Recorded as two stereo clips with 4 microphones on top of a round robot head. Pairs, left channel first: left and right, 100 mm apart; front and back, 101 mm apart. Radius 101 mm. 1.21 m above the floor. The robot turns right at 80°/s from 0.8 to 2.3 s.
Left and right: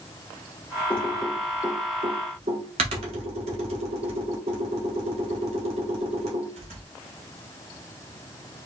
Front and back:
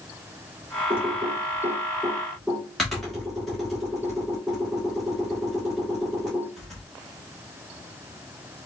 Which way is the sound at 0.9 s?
160° left.